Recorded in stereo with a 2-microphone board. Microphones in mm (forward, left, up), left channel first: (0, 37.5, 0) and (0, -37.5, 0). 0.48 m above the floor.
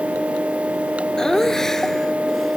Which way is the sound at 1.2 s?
5° left (ahead or behind).